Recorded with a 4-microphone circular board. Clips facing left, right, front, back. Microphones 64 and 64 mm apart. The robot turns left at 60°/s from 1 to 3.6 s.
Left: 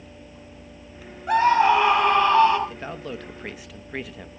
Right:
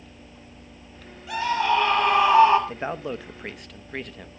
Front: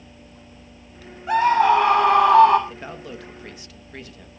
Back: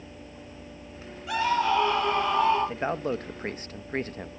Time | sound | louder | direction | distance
1.3 | a scream | left 6 dB, front 8 dB | 50° left | 6.5 m
2.7 | a man speaking | right 4 dB, back 7 dB | 135° right | 0.8 m